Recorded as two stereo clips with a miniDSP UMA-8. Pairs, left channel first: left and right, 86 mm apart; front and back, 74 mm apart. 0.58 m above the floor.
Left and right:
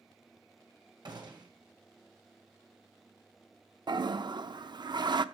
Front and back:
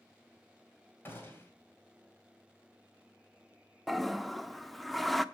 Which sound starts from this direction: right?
A toilet flushing, at 3.9 s.